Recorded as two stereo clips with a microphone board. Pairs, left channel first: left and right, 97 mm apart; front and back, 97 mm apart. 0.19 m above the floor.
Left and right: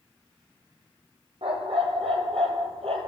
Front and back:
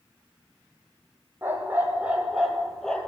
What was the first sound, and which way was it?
A dog barking, 115° right.